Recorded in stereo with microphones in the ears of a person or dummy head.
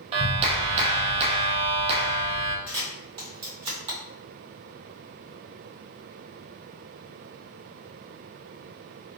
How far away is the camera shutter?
About 1.8 m.